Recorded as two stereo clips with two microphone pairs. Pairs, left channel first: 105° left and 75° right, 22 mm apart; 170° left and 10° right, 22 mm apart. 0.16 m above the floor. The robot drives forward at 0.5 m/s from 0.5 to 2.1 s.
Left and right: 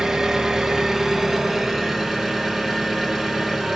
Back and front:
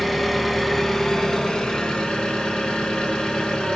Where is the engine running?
100° right, 1.0 m; by 3.8 s 155° right, 1.3 m.